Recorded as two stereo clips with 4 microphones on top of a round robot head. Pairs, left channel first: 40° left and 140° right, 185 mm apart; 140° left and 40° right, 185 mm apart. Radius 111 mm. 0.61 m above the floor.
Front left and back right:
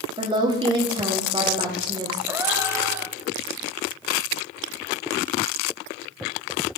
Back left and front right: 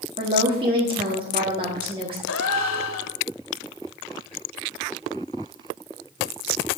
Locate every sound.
0.2 s a woman speaking: 90° right, 1.4 m
2.3 s a gasp: 140° left, 0.9 m